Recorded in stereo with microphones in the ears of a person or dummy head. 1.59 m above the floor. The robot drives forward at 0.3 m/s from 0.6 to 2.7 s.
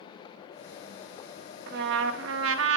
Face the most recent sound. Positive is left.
turn(degrees=-70)  # may be behind; listen again after turning